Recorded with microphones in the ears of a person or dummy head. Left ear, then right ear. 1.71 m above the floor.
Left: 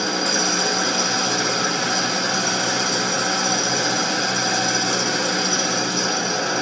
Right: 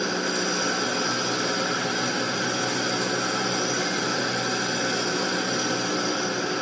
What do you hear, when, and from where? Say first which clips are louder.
0.0 s an engine running: left 5 dB; 35° left (ahead or behind), 4 m